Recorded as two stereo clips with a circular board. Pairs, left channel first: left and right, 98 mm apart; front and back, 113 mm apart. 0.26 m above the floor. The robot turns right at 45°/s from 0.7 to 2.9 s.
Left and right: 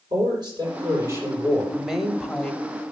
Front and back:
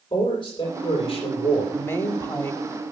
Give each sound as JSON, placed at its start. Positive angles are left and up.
{"t": 0.1, "sound": "a man speaking", "azimuth_deg": -50, "distance_m": 6.5}
{"t": 1.7, "sound": "a woman speaking", "azimuth_deg": -20, "distance_m": 0.9}